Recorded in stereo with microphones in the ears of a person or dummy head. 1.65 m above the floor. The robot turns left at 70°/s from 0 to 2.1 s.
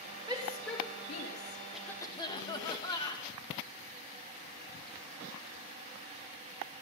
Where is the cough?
Centre (ahead or behind), 2 m; by 3.3 s 25° left (ahead or behind), 2 m.